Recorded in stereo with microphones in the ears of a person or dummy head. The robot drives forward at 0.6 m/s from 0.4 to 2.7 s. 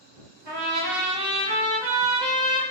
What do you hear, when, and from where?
0.5 s a trumpet: 15° right (ahead or behind), 1.8 m; by 2.6 s 10° right (ahead or behind), 3 m